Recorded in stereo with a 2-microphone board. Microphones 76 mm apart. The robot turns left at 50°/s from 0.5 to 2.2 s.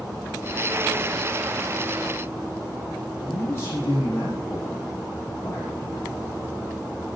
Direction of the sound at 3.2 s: 35° left (ahead or behind).